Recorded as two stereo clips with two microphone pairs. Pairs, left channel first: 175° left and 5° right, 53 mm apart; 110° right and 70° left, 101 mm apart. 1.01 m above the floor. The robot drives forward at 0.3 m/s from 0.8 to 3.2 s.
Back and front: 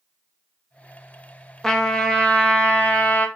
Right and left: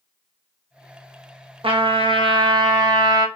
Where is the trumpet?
95° left, 1.1 m; by 3.3 s 120° left, 1.2 m.